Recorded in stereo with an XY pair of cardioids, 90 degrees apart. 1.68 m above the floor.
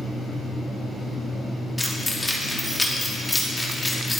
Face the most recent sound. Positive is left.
turn(degrees=15)